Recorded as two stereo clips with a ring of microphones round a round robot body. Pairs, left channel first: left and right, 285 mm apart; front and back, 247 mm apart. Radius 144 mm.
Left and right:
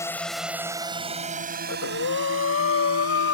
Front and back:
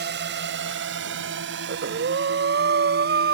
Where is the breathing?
140° left.